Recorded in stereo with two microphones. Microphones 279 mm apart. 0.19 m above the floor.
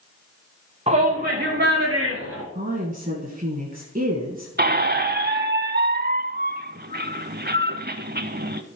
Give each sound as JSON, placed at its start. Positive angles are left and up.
{"t": 0.9, "sound": "a shout", "side_deg": -25, "distance_m": 1.2}
{"t": 2.5, "sound": "a woman speaking", "side_deg": -30, "distance_m": 1.4}
{"t": 4.6, "sound": "a squeak", "side_deg": -35, "distance_m": 0.5}